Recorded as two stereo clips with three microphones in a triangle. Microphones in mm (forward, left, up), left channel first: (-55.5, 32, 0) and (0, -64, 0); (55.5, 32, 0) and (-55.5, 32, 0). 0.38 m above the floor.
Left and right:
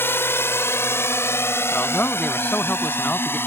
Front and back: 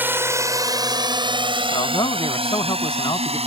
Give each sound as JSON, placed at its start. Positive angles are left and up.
{"t": 0.0, "sound": "a drone", "azimuth_deg": 145}
{"t": 1.7, "sound": "a man speaking", "azimuth_deg": 45}